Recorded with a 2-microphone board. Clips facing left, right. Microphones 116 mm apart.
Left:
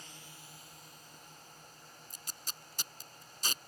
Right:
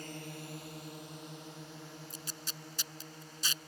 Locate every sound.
0.0 s a drone: 55° right (ahead or behind); by 3.7 s 80° right
2.1 s tape being pulled: 45° left (ahead or behind)